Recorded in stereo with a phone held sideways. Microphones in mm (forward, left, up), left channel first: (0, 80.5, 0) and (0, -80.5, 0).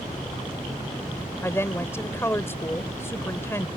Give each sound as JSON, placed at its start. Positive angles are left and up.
{"t": 1.4, "sound": "a woman speaking", "side_deg": 15}